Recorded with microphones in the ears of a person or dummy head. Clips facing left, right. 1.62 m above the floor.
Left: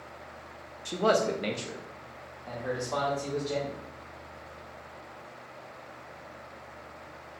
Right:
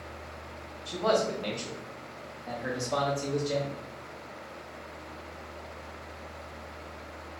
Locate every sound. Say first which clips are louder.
0.8 s a man speaking: left 1 dB; 50° left (ahead or behind), 0.7 m; by 3.8 s 45° right (ahead or behind), 1.3 m